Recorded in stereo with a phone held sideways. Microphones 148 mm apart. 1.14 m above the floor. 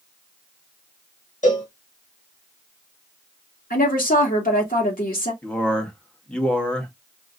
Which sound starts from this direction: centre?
A man speaking, at 5.4 s.